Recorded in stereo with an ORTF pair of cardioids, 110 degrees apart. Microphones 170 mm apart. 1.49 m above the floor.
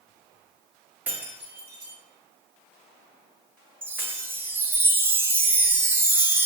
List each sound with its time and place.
1.1 s breaking glass: 10° right, 2.0 m
3.8 s a chime: 10° right, 0.7 m